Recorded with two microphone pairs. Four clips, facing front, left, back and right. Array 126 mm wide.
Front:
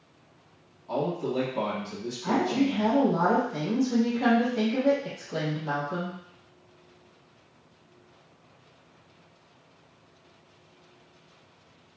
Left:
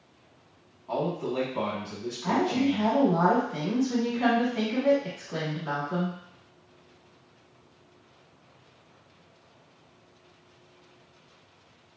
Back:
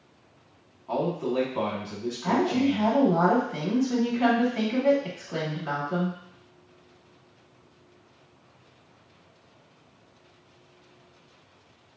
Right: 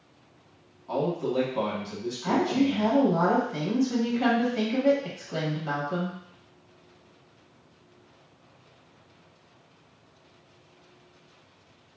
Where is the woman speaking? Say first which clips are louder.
Right 1 dB, back 1 dB; 170° left, 1.1 m.